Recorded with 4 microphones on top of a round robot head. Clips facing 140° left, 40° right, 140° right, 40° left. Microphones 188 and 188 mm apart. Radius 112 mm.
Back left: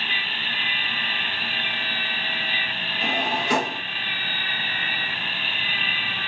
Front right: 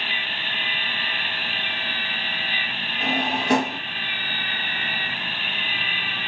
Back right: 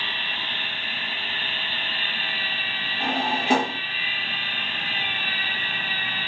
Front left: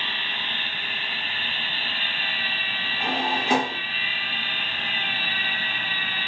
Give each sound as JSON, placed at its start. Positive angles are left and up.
{"t": 3.0, "sound": "a drawer", "azimuth_deg": -65, "distance_m": 1.2}